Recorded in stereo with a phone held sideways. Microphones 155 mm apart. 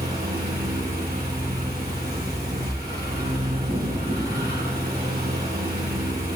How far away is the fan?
About 2.5 m.